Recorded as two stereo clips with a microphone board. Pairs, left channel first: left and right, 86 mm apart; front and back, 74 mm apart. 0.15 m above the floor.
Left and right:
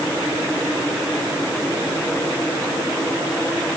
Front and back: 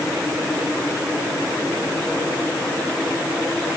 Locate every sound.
Only background noise.